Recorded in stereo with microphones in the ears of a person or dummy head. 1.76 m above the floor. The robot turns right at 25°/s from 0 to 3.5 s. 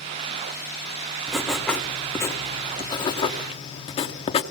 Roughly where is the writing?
Ahead.